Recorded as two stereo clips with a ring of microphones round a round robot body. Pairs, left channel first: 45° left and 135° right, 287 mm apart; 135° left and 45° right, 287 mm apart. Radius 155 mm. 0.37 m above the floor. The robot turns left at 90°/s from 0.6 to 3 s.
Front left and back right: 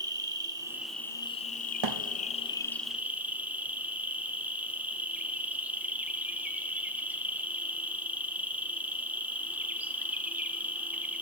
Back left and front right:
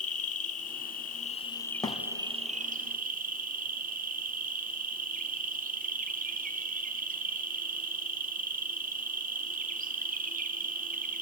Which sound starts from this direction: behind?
An insect, at 0.0 s.